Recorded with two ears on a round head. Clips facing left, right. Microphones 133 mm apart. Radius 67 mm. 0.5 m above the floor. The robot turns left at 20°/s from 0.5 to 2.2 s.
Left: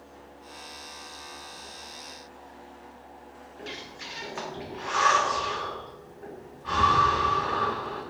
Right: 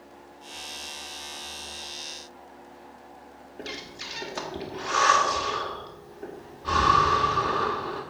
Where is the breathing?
45° right (ahead or behind), 1.5 m.